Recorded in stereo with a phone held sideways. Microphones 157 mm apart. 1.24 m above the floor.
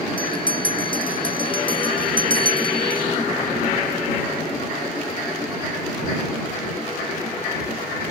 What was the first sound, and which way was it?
A bell, 35° left (ahead or behind).